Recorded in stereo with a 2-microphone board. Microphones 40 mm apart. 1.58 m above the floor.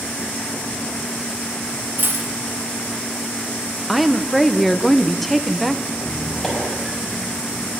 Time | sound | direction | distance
2.0 | a dropped coin | 65° right (ahead or behind) | 3.5 m
3.9 | a woman speaking | centre (ahead or behind) | 1.2 m
5.9 | a squeak | 10° left (ahead or behind) | 6 m